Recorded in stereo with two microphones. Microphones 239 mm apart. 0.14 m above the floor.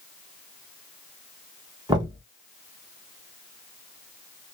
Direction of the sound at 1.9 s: 15° right (ahead or behind).